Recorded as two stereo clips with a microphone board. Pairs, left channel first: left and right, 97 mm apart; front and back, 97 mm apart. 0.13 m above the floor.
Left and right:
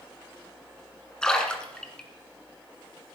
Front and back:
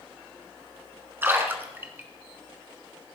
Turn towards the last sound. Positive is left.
turn(degrees=160)